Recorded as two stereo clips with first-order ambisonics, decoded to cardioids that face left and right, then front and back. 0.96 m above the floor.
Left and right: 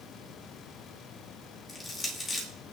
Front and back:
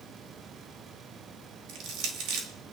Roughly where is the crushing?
Behind.